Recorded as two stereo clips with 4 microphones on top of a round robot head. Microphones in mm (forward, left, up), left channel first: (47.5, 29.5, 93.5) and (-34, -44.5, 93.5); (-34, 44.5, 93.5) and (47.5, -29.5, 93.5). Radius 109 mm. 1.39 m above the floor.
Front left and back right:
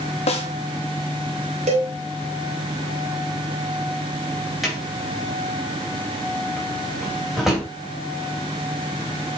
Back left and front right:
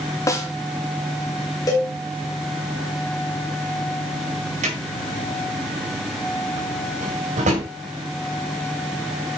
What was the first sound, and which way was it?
A snare drum, 75° left.